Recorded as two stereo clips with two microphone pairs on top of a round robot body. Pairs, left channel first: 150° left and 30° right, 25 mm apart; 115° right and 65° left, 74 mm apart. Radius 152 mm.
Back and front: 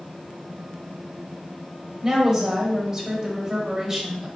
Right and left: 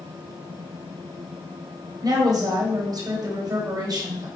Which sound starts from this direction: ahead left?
A woman speaking, at 2.0 s.